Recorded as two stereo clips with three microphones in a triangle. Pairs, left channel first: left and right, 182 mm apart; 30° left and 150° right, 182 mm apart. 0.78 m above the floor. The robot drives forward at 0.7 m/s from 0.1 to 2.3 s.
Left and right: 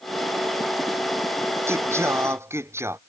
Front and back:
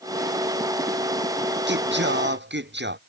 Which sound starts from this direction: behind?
Singing, at 1.7 s.